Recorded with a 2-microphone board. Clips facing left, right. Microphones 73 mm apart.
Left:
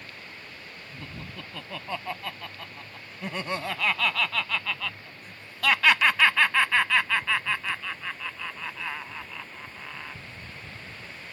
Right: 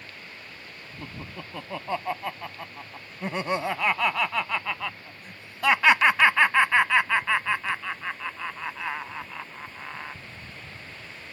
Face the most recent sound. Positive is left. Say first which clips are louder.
# right 3 dB
turn(degrees=-20)  # may be behind; listen again after turning